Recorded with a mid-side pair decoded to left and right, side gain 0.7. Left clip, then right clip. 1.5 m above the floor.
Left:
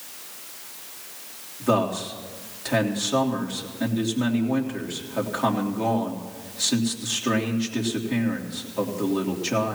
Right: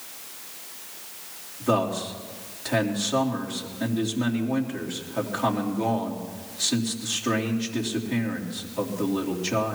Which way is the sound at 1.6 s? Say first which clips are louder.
Left 1 dB; 10° left.